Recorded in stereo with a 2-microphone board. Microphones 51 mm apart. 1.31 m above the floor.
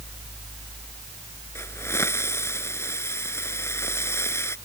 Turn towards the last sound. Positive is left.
turn(degrees=60)  # may be behind; listen again after turning